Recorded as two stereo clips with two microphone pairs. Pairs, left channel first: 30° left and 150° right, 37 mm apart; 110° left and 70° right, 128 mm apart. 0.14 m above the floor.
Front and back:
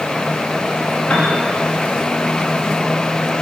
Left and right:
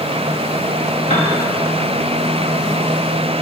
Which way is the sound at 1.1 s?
80° left.